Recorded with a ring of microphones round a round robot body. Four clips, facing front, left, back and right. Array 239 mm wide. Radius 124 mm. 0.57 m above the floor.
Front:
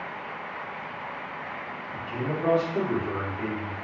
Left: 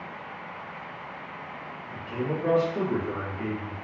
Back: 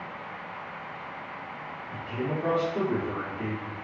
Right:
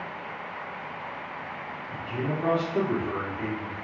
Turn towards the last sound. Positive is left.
turn(degrees=-40)